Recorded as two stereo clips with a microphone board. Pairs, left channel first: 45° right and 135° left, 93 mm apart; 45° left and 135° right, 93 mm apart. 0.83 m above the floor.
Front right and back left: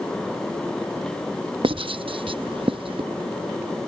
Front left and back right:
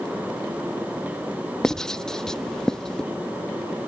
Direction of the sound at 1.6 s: 130° left.